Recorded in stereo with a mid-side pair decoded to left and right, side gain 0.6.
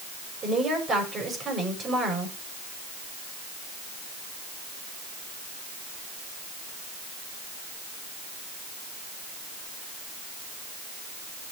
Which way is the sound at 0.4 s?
35° right.